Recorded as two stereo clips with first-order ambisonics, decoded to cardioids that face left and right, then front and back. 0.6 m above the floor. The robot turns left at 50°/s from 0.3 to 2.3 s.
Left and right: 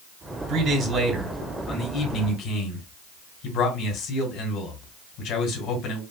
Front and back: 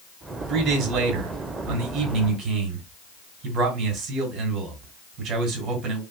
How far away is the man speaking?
About 2.5 m.